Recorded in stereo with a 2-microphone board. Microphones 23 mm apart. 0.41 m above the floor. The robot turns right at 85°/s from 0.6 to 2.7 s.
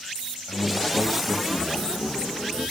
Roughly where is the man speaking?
Behind left.